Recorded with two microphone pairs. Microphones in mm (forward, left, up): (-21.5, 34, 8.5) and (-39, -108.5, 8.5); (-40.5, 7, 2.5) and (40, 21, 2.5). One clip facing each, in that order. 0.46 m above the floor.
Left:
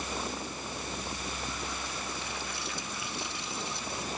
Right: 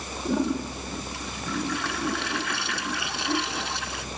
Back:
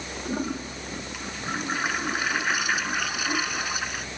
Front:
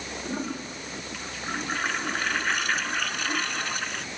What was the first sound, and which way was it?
A toilet flushing, 90° right.